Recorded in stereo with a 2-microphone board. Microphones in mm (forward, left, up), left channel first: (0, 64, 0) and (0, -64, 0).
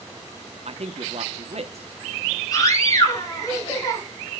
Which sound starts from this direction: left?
A scream, at 2.5 s.